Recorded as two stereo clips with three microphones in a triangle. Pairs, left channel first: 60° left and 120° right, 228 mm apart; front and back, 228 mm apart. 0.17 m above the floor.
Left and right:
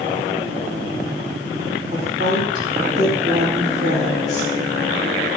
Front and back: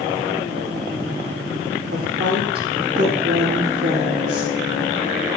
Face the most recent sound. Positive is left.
turn(degrees=-170)